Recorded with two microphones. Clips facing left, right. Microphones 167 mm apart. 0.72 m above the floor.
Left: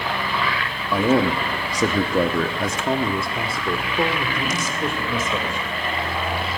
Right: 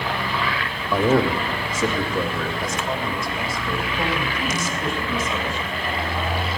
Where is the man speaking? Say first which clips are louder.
Even; centre (ahead or behind), 0.9 m; by 5.7 s 55° left (ahead or behind), 3 m.